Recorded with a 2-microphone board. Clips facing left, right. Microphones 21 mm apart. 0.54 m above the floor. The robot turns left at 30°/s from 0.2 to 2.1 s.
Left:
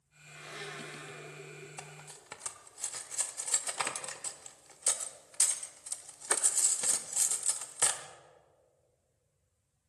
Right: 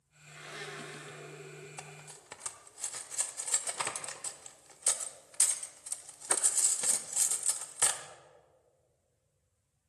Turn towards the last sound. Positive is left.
turn(degrees=15)  # may be behind; listen again after turning